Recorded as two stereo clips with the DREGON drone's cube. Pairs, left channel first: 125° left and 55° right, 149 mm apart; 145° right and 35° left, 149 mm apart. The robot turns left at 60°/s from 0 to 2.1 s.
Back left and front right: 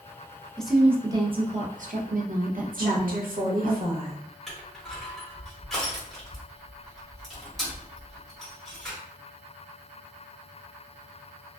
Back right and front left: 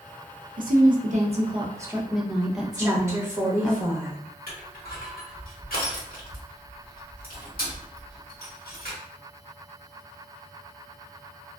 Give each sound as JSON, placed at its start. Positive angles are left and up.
{"t": 0.6, "sound": "a woman speaking", "azimuth_deg": 40, "distance_m": 0.6}
{"t": 2.8, "sound": "a woman speaking", "azimuth_deg": -35, "distance_m": 1.1}
{"t": 4.5, "sound": "crushing", "azimuth_deg": -150, "distance_m": 1.1}